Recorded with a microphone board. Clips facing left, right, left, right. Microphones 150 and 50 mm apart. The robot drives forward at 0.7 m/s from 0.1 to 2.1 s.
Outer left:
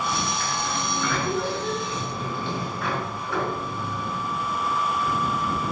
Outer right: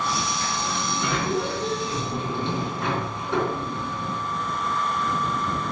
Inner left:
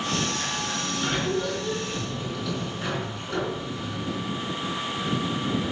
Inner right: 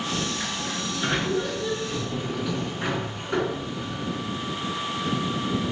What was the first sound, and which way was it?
A sliding door, 15° right (ahead or behind).